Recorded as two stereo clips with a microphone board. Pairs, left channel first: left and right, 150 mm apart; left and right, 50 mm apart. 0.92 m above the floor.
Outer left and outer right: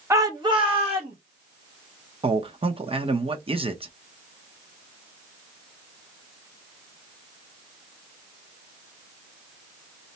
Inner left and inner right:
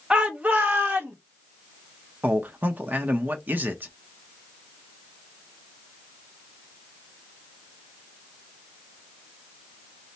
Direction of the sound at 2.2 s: 40° right (ahead or behind).